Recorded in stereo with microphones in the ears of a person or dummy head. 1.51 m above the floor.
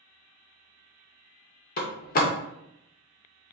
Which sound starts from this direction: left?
A door slam, at 1.8 s.